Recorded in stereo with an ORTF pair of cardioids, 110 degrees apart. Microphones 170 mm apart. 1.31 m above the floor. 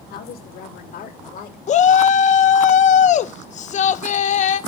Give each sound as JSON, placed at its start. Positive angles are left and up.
{"t": 0.1, "sound": "a woman speaking", "azimuth_deg": 65, "distance_m": 3.0}
{"t": 1.7, "sound": "a shout", "azimuth_deg": 45, "distance_m": 0.8}